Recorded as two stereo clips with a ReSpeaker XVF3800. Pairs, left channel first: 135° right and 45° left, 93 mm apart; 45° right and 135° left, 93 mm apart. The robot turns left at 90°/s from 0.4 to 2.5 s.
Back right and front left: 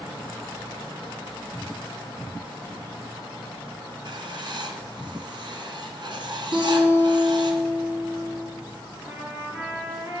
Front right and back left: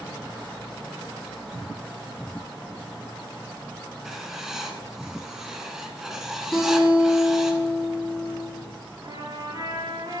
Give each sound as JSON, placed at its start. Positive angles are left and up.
{"t": 4.0, "sound": "writing", "azimuth_deg": 50, "distance_m": 1.1}
{"t": 6.5, "sound": "a guitar", "azimuth_deg": 35, "distance_m": 4.0}
{"t": 9.0, "sound": "a trumpet", "azimuth_deg": 110, "distance_m": 2.5}